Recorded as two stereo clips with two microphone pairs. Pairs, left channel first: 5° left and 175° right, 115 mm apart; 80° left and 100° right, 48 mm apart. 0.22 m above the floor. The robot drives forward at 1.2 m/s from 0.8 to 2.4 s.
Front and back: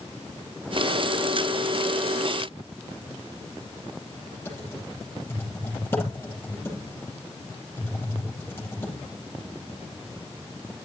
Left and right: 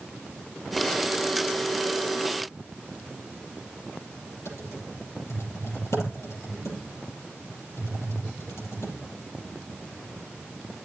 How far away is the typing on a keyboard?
About 6.5 m.